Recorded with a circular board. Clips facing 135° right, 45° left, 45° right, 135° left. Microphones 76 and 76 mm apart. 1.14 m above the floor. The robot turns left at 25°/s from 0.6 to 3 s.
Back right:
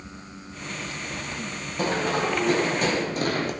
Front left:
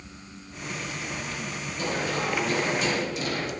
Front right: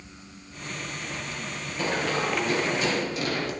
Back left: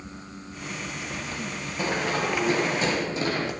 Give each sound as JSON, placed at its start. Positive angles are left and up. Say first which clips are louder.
{"t": 1.8, "sound": "running footsteps", "louder": "back right 4 dB, even", "azimuth_deg": -145, "distance_m": 3.0}